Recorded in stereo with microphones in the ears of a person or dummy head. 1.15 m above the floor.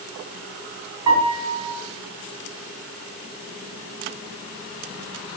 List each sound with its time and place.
1.1 s a piano: 20° right (ahead or behind), 3 m